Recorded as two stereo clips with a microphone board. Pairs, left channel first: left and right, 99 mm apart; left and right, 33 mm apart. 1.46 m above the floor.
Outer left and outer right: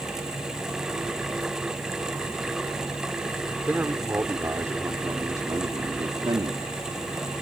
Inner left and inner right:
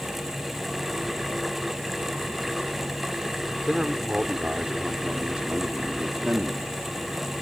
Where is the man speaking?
15° right (ahead or behind); by 6.6 s 50° right (ahead or behind).